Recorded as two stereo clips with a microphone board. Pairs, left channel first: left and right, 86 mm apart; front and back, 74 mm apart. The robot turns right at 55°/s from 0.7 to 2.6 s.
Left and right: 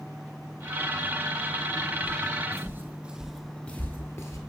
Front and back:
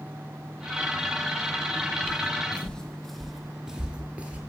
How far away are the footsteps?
About 0.9 m.